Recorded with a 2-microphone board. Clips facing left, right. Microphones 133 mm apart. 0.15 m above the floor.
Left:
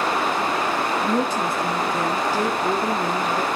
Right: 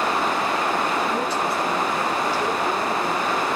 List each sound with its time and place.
1.0 s a woman speaking: 45° left (ahead or behind), 2.5 m